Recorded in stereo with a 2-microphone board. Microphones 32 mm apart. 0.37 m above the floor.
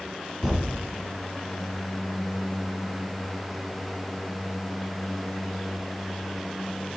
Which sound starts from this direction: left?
A thud, at 0.4 s.